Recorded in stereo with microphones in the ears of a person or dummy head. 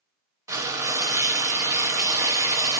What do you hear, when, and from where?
0.5 s frying: 15° right (ahead or behind), 0.9 m